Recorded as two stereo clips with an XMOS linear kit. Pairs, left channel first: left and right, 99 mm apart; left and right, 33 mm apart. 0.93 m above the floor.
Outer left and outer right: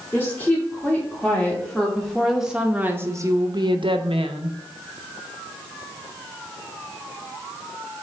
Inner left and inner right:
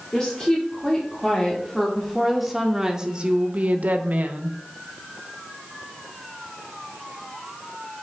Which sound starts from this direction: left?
A woman speaking, at 0.1 s.